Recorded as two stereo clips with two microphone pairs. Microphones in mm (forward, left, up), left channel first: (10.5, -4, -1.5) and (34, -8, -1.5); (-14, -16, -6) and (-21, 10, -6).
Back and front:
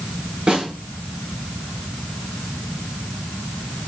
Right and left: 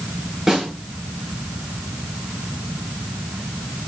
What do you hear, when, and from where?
0.5 s a snare drum: 30° left, 6.5 m